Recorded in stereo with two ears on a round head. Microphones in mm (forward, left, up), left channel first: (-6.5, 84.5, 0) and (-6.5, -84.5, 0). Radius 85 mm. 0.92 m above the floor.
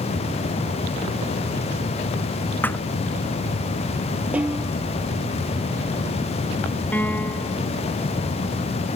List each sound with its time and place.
2.6 s a thud: 10° left (ahead or behind)
4.3 s a snare drum: 5° right (ahead or behind)
6.9 s a piano: 10° left (ahead or behind)